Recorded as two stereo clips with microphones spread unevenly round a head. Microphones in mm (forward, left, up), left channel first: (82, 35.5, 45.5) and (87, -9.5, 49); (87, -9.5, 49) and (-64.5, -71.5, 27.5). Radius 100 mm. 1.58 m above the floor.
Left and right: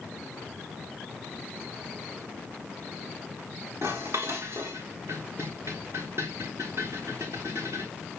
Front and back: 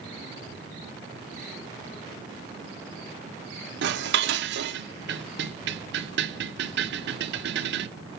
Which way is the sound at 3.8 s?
150° right.